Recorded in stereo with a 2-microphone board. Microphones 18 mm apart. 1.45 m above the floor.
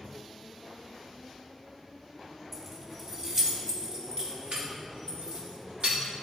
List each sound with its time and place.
2.5 s keys jangling: 5° right (ahead or behind), 1.6 m; by 6.0 s 60° right (ahead or behind), 3 m